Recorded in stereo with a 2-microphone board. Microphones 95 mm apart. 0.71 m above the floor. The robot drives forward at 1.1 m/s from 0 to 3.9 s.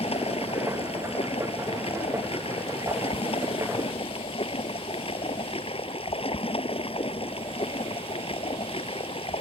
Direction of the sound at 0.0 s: 85° left.